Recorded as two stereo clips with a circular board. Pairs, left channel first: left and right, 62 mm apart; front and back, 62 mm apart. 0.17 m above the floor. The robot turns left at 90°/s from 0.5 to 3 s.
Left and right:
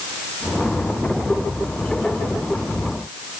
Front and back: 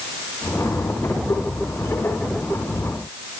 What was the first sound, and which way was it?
Only background noise.